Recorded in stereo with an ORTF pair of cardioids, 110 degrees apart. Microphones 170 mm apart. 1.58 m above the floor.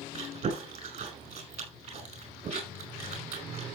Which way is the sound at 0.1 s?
40° right.